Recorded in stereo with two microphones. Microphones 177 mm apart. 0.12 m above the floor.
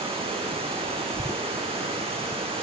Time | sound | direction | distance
0.0 | running water | 30° right (ahead or behind) | 5 m